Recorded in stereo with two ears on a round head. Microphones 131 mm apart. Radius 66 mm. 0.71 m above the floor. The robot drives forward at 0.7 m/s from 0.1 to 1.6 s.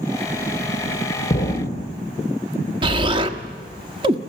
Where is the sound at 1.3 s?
25° left (ahead or behind), 2.5 m.